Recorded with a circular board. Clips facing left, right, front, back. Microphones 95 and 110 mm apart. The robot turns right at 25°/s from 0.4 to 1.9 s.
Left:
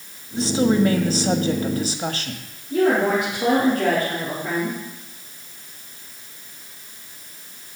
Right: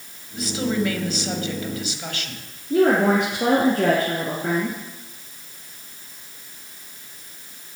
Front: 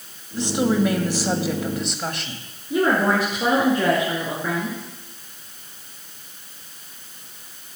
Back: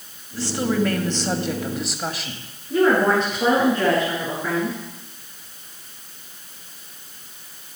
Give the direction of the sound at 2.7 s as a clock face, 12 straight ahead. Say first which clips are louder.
Right 1 dB, back 2 dB; 3 o'clock.